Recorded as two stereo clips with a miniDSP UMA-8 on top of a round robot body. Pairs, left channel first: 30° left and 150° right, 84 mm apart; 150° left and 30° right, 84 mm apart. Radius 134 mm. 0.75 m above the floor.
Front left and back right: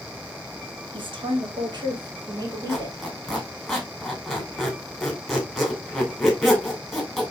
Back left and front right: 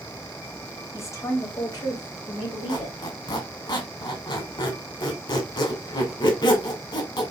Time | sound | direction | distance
0.9 | a woman speaking | 155° right | 1.8 m
2.7 | a squeak | 120° left | 2 m